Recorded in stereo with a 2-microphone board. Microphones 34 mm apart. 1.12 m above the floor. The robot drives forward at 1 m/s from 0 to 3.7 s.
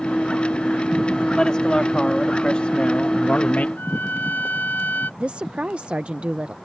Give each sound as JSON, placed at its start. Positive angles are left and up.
{"t": 1.4, "sound": "a man speaking", "side_deg": 25}
{"t": 3.8, "sound": "a trumpet", "side_deg": 75}
{"t": 5.2, "sound": "a woman speaking", "side_deg": -40}